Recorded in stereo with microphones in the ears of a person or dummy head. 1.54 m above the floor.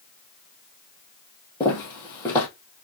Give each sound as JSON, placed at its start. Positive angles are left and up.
{"t": 1.6, "sound": "footsteps", "side_deg": 20, "distance_m": 2.5}